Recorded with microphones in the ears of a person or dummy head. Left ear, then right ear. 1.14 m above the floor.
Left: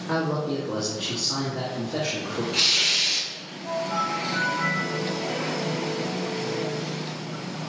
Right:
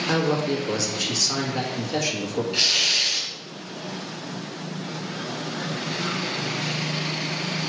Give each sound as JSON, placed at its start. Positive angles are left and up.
{"t": 0.1, "sound": "a man speaking", "side_deg": -70, "distance_m": 1.7}
{"t": 2.5, "sound": "tearing paper", "side_deg": -5, "distance_m": 4.0}